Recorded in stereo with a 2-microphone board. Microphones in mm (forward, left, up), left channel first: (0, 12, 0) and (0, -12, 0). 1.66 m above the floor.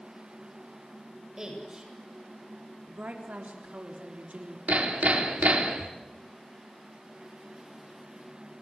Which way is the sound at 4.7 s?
75° right (ahead or behind).